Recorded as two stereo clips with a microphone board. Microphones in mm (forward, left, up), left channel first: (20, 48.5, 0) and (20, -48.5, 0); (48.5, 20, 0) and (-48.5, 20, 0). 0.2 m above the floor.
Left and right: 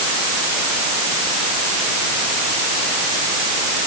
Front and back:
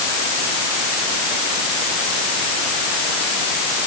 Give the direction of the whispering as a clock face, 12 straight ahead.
No whispering in this recording.